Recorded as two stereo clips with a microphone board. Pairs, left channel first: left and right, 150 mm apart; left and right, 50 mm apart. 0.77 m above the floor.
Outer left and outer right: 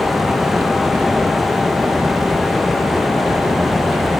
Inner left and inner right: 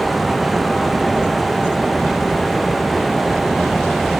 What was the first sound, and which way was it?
Only background noise.